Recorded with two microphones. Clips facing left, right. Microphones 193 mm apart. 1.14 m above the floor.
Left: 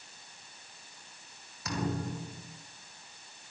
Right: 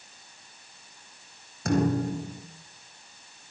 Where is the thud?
50° right (ahead or behind), 4.5 m.